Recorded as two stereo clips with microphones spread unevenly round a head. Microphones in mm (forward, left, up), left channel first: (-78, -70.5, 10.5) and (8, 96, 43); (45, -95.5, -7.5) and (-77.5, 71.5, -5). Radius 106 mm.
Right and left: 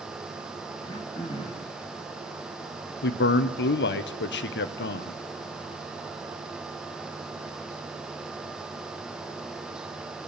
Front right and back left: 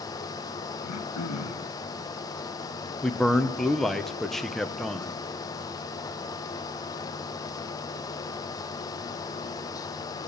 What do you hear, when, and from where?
0.8 s throat clearing: 45° right, 1.5 m
3.0 s a man speaking: 140° right, 1.0 m